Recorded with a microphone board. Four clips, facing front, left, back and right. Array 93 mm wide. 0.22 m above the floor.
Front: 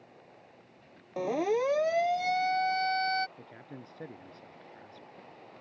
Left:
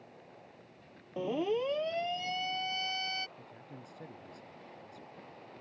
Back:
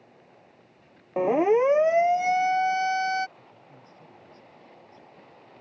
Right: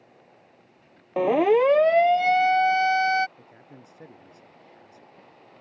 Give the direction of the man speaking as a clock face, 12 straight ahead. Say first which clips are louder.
Right 1 dB, front 4 dB; 1 o'clock.